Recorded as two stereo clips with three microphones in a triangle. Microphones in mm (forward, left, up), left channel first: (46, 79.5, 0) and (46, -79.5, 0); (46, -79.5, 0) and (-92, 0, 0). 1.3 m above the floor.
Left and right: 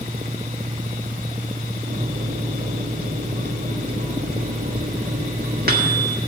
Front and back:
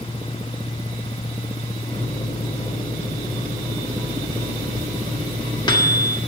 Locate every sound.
1.9 s a microwave: 90° right, 1.7 m